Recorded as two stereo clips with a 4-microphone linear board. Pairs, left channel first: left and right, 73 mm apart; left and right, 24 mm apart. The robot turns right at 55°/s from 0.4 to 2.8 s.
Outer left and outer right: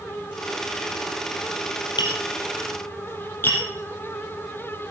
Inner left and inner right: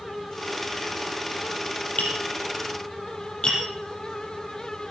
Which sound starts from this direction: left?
Tapping, at 2.0 s.